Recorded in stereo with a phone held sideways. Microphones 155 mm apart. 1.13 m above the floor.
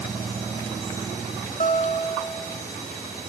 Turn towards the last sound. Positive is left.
turn(degrees=55)  # may be behind; listen again after turning